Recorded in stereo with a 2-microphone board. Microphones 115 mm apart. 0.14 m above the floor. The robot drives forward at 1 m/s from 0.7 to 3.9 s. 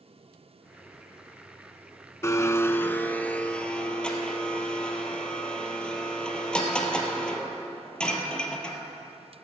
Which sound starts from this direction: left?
A blender, at 2.2 s.